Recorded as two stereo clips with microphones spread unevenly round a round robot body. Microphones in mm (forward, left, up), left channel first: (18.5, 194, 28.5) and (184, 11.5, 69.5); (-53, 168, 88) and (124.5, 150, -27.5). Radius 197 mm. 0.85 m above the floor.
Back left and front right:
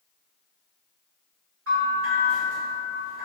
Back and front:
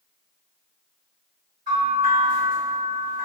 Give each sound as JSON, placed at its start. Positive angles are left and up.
{"t": 1.7, "sound": "a bell", "azimuth_deg": -25, "distance_m": 1.1}